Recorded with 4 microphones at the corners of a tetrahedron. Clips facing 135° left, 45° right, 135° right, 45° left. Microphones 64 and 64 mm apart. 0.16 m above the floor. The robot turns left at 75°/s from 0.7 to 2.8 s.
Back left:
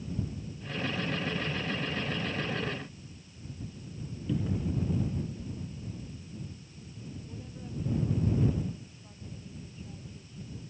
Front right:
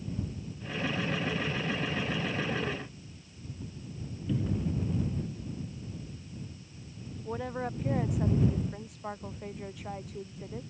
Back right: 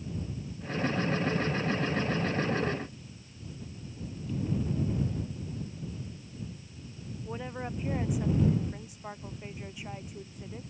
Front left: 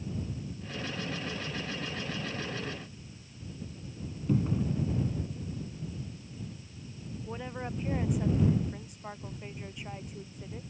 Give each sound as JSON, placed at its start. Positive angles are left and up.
{"t": 4.3, "sound": "a cupboard door", "azimuth_deg": 45}
{"t": 7.2, "sound": "a woman speaking", "azimuth_deg": -50}